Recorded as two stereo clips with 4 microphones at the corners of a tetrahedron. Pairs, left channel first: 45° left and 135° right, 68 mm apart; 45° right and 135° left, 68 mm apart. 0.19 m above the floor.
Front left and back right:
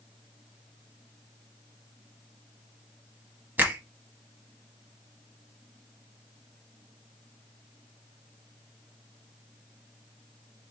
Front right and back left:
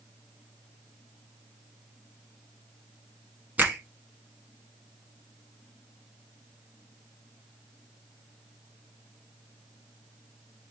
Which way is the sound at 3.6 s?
175° right.